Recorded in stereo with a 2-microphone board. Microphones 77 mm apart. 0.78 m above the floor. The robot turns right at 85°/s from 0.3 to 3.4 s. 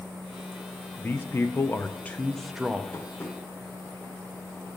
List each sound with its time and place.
1.0 s a man speaking: 50° left, 0.5 m; by 2.8 s 150° right, 0.5 m
2.9 s tapping: 45° left (ahead or behind), 1.2 m; by 3.4 s 10° left (ahead or behind), 1.2 m